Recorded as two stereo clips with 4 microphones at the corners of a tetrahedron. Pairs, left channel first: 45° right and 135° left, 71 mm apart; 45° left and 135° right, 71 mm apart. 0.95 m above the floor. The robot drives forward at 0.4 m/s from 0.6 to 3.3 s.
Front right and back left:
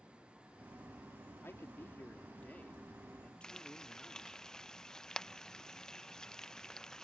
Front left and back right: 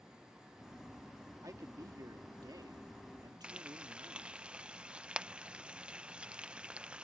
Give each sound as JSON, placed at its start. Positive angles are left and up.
{"t": 1.4, "sound": "a man speaking", "azimuth_deg": -100}
{"t": 3.4, "sound": "frying", "azimuth_deg": -95}